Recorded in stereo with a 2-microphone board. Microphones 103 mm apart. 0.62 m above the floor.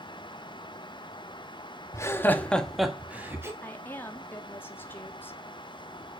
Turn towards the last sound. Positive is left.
turn(degrees=20)  # may be behind; listen again after turning